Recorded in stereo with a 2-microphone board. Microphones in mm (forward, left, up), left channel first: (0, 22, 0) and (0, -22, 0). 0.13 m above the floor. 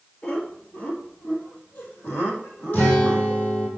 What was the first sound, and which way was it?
Laughter, 25° left (ahead or behind).